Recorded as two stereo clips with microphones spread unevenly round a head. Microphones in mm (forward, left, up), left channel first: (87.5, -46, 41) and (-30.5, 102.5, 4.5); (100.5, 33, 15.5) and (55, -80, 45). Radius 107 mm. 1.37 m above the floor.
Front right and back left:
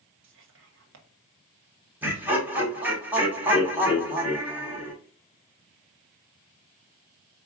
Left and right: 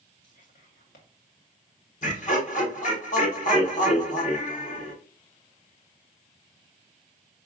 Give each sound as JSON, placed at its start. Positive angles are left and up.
{"t": 0.2, "sound": "whispering", "azimuth_deg": 105, "distance_m": 1.1}
{"t": 2.0, "sound": "laughter", "azimuth_deg": 45, "distance_m": 1.7}